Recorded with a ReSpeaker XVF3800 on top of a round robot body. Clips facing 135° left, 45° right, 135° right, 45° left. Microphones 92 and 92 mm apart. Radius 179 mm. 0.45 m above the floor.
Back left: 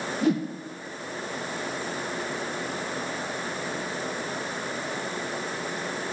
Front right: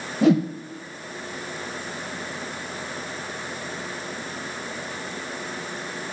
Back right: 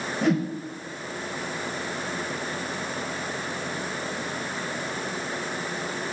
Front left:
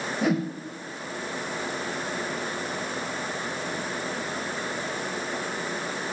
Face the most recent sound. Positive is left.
turn(degrees=-40)